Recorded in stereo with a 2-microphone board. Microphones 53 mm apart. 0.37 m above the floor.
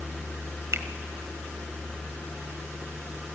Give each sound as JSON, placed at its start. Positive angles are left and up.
{"t": 0.7, "sound": "a finger snap", "side_deg": -55, "distance_m": 1.3}